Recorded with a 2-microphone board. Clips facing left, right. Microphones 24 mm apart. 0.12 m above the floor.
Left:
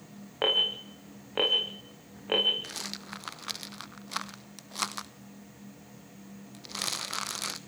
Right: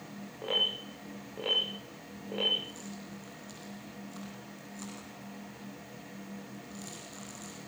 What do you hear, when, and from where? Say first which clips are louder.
0.4 s an alarm: left 4 dB; 80° left, 9 m
2.6 s a rattle: left 5 dB; 85° left, 0.9 m